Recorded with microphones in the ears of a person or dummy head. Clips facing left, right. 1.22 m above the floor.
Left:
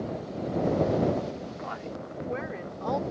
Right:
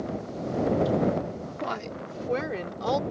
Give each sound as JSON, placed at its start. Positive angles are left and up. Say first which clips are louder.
{"t": 1.6, "sound": "a woman speaking", "louder": "right 3 dB", "side_deg": -70}